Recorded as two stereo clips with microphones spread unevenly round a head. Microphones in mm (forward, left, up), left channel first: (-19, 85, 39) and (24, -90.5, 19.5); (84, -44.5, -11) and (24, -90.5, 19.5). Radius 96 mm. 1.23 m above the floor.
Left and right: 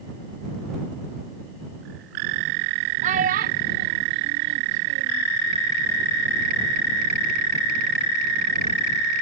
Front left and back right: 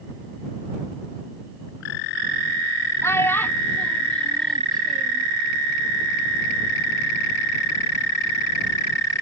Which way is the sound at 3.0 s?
20° right.